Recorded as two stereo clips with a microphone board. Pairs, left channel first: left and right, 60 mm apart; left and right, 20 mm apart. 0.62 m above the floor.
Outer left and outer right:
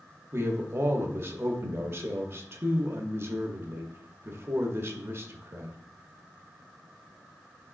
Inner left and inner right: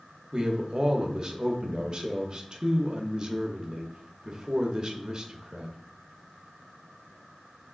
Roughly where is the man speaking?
Right.